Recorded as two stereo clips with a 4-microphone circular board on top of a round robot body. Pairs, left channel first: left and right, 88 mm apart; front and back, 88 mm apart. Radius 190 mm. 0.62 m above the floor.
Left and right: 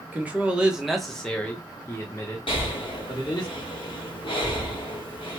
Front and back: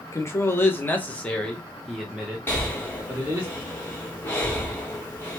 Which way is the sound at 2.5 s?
70° left.